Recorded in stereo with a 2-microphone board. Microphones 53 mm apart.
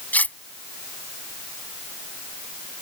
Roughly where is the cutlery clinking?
Left.